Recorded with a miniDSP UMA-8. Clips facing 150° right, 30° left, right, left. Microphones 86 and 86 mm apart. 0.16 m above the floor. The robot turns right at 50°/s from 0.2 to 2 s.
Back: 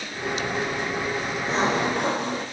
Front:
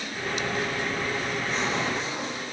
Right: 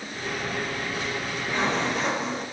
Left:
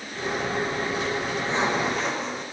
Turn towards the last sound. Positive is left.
turn(degrees=180)